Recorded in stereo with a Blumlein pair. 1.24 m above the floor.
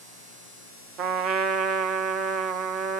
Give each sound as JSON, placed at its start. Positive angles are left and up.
{"t": 1.0, "sound": "a trumpet", "azimuth_deg": -35, "distance_m": 0.6}